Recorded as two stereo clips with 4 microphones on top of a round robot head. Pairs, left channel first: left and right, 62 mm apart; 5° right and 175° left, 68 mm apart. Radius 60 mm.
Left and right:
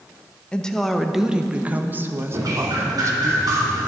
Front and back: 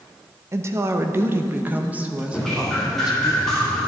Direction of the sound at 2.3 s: 90° right.